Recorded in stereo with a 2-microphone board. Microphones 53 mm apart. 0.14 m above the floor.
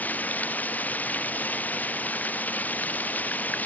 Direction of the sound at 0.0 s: 25° left (ahead or behind).